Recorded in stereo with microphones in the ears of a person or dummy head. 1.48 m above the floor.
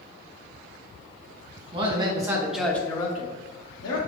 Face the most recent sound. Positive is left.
turn(degrees=75)  # may be behind; listen again after turning